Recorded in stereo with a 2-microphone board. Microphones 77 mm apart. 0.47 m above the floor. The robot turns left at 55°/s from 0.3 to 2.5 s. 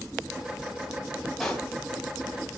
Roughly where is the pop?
Centre.